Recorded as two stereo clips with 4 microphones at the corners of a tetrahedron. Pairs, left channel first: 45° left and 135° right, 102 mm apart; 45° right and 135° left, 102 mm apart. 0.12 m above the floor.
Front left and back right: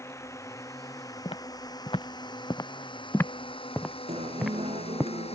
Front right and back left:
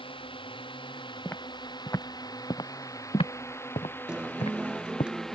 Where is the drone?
15° right; by 5.3 s 40° left.